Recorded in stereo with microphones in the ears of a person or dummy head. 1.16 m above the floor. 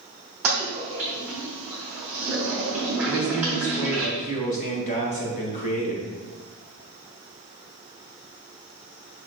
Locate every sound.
0.4 s a toilet flushing: 5° right (ahead or behind), 0.8 m
3.1 s a man speaking: 40° left (ahead or behind), 1.5 m